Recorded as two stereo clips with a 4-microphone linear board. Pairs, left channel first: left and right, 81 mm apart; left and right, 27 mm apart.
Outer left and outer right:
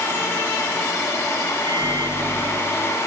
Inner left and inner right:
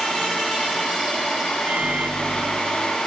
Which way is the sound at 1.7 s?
80° right.